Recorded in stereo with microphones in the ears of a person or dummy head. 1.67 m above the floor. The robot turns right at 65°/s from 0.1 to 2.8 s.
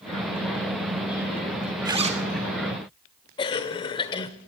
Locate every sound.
1.9 s a zipper: 15° right (ahead or behind), 0.7 m; by 2.2 s 40° right (ahead or behind), 0.7 m
3.4 s a cough: 25° left (ahead or behind), 0.7 m